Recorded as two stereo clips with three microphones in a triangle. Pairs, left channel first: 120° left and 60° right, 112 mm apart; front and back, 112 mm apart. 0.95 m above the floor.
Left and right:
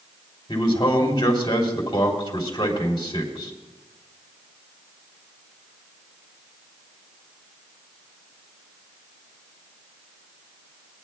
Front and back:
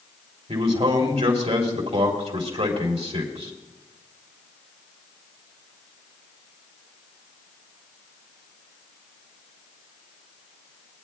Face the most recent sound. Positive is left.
turn(degrees=170)